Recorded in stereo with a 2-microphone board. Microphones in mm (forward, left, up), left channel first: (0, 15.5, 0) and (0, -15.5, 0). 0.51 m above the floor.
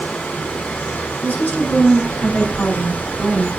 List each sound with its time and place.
0.0 s running water: 65° left (ahead or behind), 3.5 m
1.2 s a woman speaking: 75° left (ahead or behind), 4 m